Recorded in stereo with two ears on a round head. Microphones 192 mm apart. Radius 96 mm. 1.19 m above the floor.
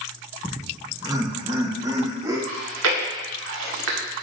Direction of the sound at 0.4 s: 15° right (ahead or behind).